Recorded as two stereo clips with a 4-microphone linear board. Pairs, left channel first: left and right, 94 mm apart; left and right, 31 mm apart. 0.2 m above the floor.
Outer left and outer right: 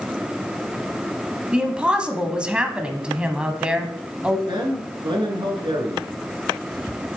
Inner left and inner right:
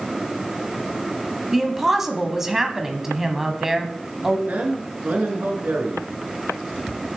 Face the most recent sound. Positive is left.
turn(degrees=-60)  # may be behind; listen again after turning